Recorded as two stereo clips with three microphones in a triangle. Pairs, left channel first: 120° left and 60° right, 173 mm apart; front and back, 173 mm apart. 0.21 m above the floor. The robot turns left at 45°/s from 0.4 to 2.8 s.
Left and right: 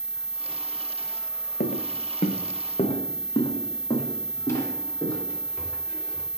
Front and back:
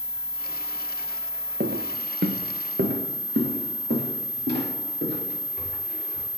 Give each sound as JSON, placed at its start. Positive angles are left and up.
{"t": 1.6, "sound": "footsteps", "azimuth_deg": 150, "distance_m": 0.7}